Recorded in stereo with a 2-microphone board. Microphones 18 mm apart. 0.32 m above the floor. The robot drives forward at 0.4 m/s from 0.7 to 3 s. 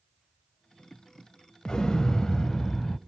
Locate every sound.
1.6 s an explosion: 50° left (ahead or behind), 0.5 m; by 3.0 s 30° left (ahead or behind), 0.8 m